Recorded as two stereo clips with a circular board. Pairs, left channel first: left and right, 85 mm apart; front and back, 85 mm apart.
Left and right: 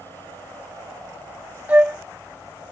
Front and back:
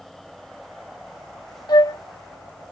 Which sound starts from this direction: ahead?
A flute, at 1.7 s.